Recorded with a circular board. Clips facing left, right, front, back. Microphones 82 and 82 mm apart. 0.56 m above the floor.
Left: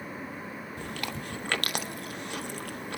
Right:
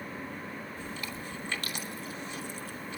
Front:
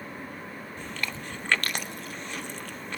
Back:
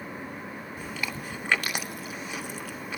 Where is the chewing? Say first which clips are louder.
Left 3 dB, even; 95° left, 0.5 m.